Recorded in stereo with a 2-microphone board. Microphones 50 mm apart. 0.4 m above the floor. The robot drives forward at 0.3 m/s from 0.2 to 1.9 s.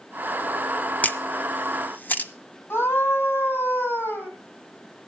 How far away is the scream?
About 3.5 m.